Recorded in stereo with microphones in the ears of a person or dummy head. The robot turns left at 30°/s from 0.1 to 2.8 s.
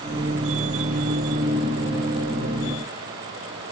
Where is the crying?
No crying in this recording.